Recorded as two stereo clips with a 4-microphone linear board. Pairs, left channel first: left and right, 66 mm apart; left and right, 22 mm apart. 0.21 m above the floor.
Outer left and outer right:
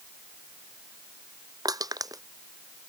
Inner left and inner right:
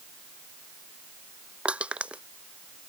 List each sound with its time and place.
1.6 s crushing: 70° right (ahead or behind)